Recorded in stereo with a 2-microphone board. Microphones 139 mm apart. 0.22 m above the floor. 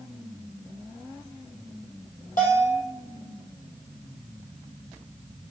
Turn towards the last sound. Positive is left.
turn(degrees=75)  # may be behind; listen again after turning